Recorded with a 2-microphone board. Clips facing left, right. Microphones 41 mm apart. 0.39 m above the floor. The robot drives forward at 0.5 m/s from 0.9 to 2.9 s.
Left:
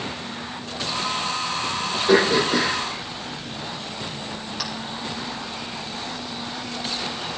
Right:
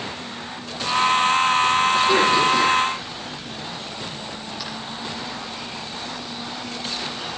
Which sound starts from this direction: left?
Throat clearing, at 2.1 s.